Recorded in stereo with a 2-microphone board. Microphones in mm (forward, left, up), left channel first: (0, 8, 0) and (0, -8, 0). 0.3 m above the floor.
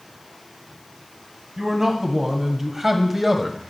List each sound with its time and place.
1.6 s a man speaking: 30° right (ahead or behind), 1.9 m; by 3.6 s 15° right (ahead or behind), 1.1 m